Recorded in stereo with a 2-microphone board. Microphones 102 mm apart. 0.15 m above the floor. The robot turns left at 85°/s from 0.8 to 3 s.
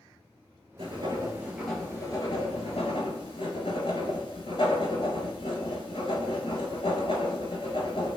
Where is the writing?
65° right (ahead or behind), 0.8 m; by 8.2 s 60° left (ahead or behind), 0.8 m.